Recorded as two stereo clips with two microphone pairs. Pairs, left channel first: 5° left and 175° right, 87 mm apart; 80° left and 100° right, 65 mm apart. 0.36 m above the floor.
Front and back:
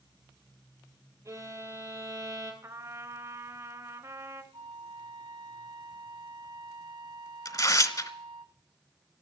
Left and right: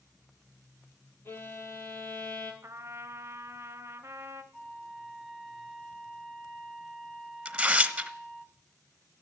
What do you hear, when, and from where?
1.2 s a violin: 135° left, 2 m
2.6 s a trumpet: 135° right, 1.2 m
4.5 s a flute: 170° left, 1.7 m
7.5 s tearing paper: 30° right, 1.0 m